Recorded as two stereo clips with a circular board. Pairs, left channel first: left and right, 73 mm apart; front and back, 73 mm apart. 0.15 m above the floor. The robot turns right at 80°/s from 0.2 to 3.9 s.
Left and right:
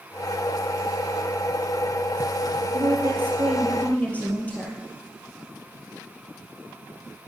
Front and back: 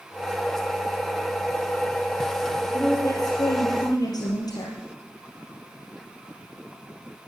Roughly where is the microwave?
No microwave in this recording.